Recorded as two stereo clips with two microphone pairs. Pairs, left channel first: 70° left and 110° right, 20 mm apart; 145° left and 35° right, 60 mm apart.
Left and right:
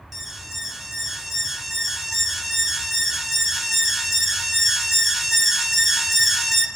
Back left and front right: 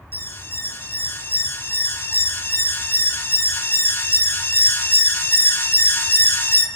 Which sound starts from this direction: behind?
An alarm, at 0.1 s.